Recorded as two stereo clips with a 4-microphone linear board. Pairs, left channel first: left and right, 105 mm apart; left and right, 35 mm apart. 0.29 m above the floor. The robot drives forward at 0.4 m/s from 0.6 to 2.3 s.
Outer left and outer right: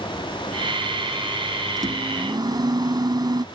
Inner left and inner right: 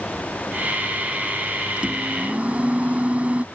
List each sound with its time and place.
1.8 s a microwave: 40° right (ahead or behind); by 3.5 s 45° right (ahead or behind)